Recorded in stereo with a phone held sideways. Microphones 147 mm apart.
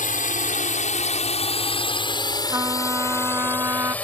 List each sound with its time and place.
0.0 s a drone: 65° left (ahead or behind); by 4.0 s 10° left (ahead or behind)
2.5 s a trumpet: 20° right (ahead or behind)